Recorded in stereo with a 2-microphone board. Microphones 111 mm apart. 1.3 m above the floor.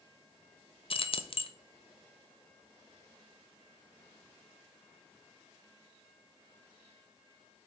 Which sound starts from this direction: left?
Keys jangling, at 0.9 s.